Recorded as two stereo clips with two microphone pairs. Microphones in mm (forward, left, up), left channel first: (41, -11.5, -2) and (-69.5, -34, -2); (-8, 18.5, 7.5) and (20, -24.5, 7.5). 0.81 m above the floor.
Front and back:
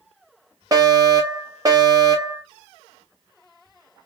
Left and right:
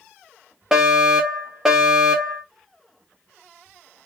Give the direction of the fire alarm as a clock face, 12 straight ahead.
4 o'clock.